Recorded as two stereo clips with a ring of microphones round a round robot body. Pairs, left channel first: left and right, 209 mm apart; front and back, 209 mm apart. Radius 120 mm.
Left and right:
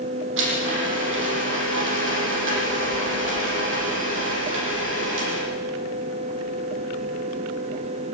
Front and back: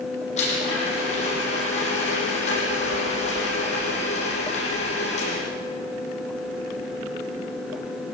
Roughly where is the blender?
Ahead right.